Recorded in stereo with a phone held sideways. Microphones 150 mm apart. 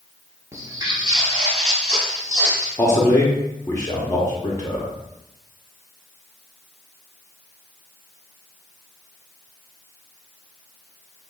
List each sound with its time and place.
0.5 s footsteps: 20° right (ahead or behind), 1.0 m; by 2.7 s 60° right (ahead or behind), 1.8 m
2.8 s a man speaking: 20° left (ahead or behind), 0.6 m